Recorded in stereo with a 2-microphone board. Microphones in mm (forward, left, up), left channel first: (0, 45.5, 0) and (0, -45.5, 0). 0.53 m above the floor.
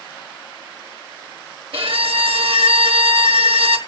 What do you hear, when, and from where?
1.7 s a violin: 80° right, 1.1 m